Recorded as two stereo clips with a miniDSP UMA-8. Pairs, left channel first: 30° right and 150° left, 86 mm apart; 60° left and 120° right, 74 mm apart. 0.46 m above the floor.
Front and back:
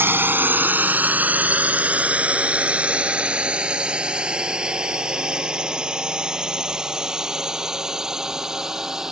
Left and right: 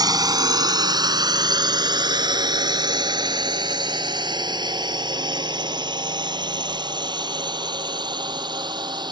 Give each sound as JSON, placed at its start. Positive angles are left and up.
{"t": 0.0, "sound": "a drone", "azimuth_deg": -145}